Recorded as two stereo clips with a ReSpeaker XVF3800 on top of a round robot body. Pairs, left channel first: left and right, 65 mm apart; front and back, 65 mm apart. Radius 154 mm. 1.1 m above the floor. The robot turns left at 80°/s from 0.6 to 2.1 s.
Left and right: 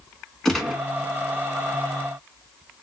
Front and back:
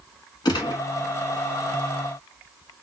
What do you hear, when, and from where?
0.5 s a gunshot: 5° left, 1.1 m; by 0.8 s 10° right, 1.1 m